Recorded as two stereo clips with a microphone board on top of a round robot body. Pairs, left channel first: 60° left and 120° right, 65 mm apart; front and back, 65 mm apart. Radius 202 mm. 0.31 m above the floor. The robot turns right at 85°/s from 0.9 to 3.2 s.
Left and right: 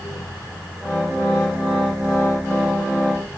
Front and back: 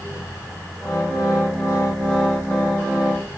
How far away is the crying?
I don't hear crying.